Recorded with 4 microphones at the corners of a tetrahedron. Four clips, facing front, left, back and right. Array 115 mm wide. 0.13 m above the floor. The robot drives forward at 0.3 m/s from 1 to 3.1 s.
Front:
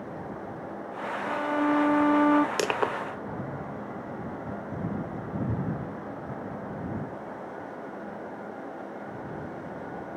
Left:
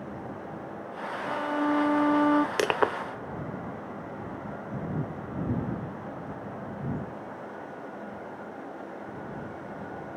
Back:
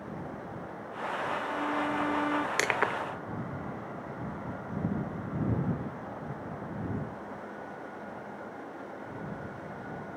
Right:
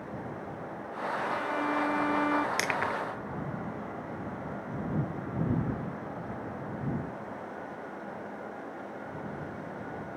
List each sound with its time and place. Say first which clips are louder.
1.2 s a violin: left 6 dB, front 9 dB; 35° left
2.6 s crushing: left 6 dB, front 2 dB; 60° left; by 2.9 s 65° left